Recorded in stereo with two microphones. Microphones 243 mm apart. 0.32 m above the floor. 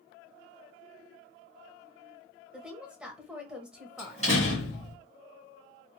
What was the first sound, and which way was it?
A woman speaking, 5° right (ahead or behind).